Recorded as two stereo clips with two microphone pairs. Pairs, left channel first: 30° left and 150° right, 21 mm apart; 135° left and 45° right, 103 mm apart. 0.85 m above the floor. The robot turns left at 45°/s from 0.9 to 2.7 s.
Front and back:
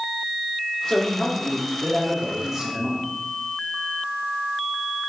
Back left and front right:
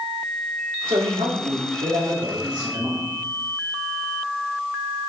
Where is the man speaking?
10° right, 2.0 m; by 3.0 s 90° right, 2.0 m.